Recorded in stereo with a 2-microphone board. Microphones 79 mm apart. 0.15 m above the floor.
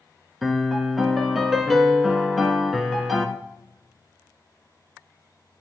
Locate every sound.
0.4 s a piano: centre (ahead or behind), 0.7 m